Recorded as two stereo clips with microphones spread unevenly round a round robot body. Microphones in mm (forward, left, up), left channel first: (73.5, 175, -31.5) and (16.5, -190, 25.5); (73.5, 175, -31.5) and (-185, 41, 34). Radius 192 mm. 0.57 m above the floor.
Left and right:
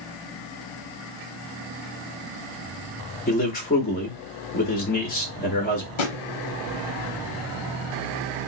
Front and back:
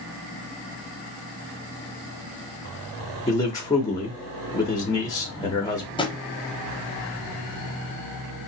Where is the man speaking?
65° left, 0.7 m.